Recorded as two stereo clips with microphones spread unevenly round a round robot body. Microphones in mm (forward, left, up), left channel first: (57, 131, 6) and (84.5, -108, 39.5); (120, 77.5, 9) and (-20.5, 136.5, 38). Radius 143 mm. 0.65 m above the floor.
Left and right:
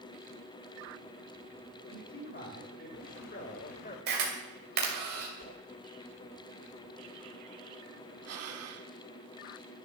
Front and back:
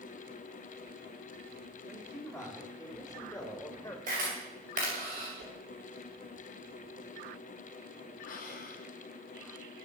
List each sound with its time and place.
1.9 s a man speaking: 65° left, 3.5 m; by 4.0 s 45° left, 3 m
4.1 s a camera shutter: 140° right, 2.5 m
5.4 s a whoosh: 145° left, 2.5 m
8.2 s breathing: 60° right, 1.3 m